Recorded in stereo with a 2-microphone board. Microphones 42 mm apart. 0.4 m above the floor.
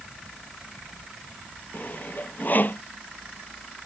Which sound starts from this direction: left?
Sawing, at 1.7 s.